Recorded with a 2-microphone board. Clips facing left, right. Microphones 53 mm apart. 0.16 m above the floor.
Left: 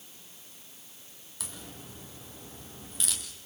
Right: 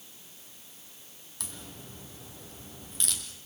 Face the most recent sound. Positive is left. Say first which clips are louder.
# even
turn(degrees=5)  # may be behind; listen again after turning